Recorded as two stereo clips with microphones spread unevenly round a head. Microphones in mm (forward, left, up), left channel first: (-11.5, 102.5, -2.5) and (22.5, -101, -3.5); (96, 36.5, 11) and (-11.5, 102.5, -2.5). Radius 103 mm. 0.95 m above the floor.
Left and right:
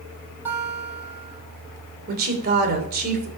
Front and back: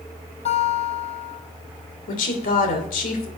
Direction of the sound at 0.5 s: 5° right.